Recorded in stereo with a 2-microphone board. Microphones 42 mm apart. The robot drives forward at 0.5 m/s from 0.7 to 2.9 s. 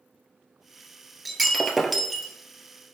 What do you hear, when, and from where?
1.2 s breaking glass: centre (ahead or behind), 0.8 m